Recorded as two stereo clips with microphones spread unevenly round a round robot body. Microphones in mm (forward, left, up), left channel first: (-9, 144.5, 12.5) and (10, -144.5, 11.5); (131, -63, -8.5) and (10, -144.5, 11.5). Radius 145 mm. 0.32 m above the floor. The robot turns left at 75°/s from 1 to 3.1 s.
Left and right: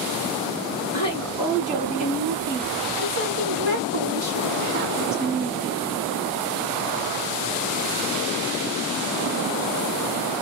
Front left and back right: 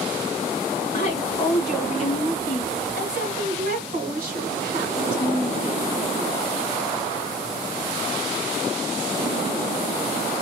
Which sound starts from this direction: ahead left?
A woman speaking, at 0.9 s.